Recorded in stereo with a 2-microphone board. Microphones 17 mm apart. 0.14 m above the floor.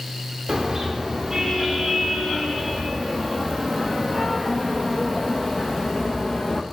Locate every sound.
0.5 s a car horn: 20° right (ahead or behind), 8 m; by 6.6 s 35° left (ahead or behind), 5.5 m